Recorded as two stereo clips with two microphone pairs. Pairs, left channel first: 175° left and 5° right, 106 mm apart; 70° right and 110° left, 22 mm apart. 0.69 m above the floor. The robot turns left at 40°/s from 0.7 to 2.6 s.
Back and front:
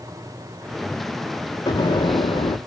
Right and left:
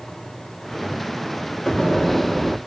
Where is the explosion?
135° right, 0.8 m; by 2.6 s 170° right, 0.8 m.